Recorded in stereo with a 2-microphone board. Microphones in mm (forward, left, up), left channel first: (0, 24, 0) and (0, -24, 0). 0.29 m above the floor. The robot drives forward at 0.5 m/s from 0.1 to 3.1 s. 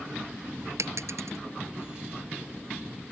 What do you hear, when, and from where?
0.8 s a dropped coin: 85° right; by 1.4 s 80° right